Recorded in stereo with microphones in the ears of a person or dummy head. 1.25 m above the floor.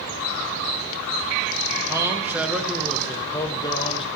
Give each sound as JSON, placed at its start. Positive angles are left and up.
{"t": 1.9, "sound": "a man speaking", "side_deg": -20, "distance_m": 1.6}